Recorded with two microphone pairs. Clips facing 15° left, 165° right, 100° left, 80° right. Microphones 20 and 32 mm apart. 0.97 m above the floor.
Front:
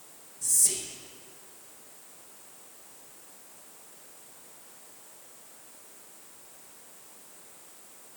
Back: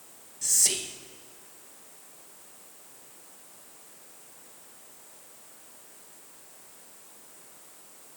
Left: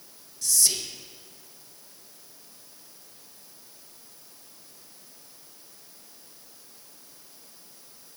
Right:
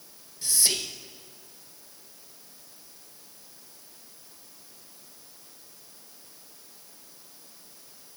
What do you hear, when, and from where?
0.4 s whispering: 125° right, 0.8 m